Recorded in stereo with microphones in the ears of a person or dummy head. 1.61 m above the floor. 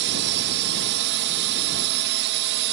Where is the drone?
60° right (ahead or behind).